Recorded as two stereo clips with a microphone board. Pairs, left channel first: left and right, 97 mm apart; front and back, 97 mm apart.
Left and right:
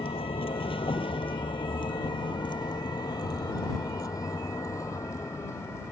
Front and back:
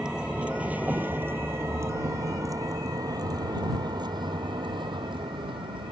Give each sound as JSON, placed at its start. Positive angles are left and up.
{"t": 0.0, "sound": "a vehicle", "azimuth_deg": 95}